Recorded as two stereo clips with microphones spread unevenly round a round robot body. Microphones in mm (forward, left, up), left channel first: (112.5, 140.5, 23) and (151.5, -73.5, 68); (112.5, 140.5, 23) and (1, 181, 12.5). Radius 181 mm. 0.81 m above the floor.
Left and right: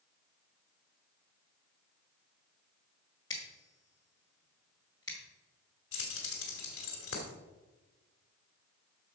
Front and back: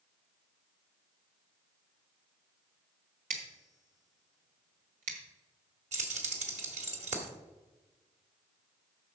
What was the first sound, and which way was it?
Scissors, straight behind.